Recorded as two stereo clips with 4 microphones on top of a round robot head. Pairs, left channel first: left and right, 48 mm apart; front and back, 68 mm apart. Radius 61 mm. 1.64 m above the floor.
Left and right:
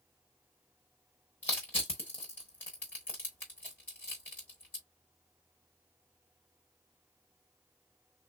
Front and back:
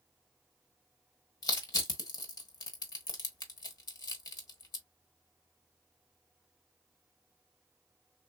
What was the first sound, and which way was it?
Crushing, 20° left.